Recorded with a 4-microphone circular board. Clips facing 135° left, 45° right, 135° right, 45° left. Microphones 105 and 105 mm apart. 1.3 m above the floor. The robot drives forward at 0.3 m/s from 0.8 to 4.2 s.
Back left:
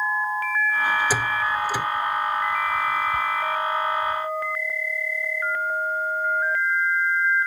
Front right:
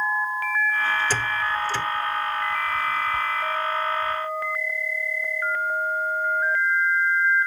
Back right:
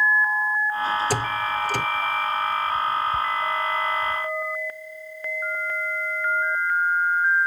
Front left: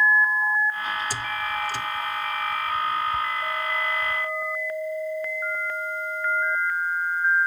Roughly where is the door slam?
Behind right.